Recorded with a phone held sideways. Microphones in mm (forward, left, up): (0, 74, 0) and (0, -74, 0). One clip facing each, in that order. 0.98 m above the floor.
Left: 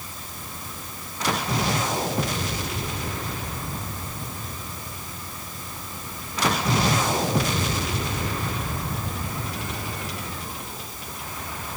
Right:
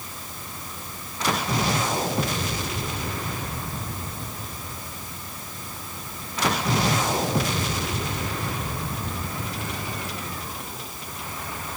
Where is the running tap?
No running tap in this recording.